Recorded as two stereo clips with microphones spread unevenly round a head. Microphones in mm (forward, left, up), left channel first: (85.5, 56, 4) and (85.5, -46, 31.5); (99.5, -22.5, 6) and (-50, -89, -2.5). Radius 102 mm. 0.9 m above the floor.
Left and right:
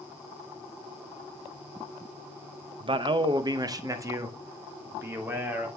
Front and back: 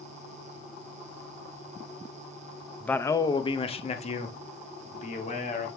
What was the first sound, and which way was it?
A man speaking, 65° right.